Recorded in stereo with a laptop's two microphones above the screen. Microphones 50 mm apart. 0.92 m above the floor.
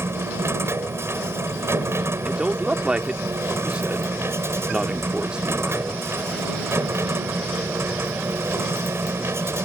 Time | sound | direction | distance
0.0 | a machine running | 65° right (ahead or behind) | ?
2.2 | a man speaking | 20° right (ahead or behind) | ?